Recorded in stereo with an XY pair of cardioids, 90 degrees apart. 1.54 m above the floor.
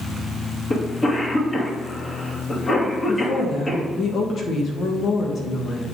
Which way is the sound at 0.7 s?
35° left.